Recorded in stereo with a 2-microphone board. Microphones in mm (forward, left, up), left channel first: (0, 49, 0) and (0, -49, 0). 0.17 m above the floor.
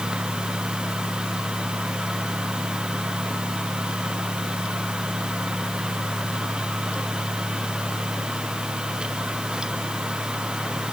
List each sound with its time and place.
Only background noise.